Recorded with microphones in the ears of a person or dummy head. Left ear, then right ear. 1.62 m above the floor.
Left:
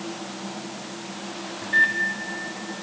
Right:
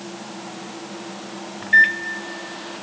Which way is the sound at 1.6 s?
40° right (ahead or behind).